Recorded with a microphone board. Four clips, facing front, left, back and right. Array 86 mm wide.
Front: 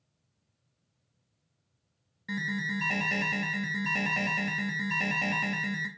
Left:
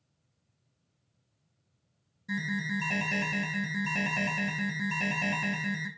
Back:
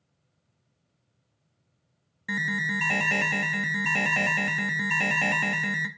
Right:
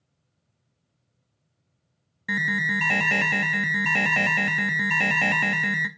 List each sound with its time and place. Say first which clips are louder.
2.3 s an alarm: right 7 dB, back 4 dB; 110° right, 0.6 m